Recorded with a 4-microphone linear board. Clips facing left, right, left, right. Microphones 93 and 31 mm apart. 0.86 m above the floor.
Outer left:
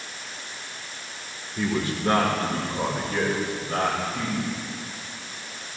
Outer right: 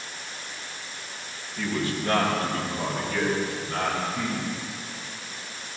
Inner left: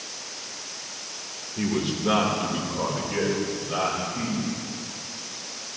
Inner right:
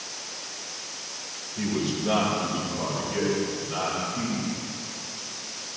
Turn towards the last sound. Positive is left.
turn(degrees=50)  # may be behind; listen again after turning